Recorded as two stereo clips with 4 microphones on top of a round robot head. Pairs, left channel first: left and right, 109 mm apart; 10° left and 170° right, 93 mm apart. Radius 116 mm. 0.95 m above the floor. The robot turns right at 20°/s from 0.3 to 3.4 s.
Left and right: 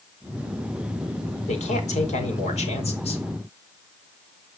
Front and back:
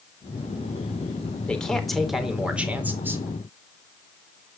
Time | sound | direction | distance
1.5 | a man speaking | 90° left | 4 m